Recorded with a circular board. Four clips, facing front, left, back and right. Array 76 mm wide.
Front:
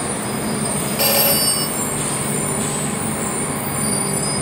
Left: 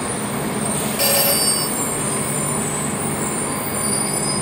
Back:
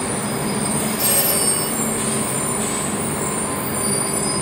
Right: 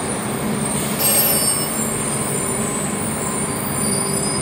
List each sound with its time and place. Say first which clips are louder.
1.0 s a phone ringing: left 1 dB, front 3 dB; 35° left, 3.5 m